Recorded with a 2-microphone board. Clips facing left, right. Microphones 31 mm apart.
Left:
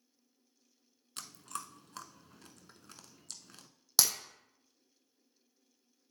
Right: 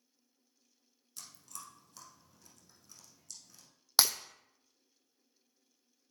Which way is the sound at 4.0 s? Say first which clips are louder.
Right 2 dB; 25° right (ahead or behind).